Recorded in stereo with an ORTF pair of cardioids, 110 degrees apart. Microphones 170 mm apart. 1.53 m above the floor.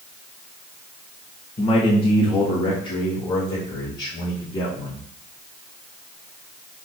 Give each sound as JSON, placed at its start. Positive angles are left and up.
{"t": 1.6, "sound": "a man speaking", "azimuth_deg": 35, "distance_m": 1.9}